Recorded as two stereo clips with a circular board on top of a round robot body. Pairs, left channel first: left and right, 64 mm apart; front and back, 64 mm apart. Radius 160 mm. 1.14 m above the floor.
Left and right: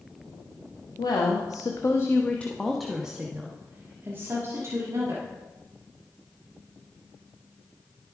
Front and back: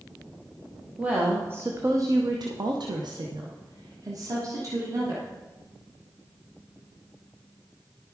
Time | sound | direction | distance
1.0 | a woman speaking | 110° left | 1.1 m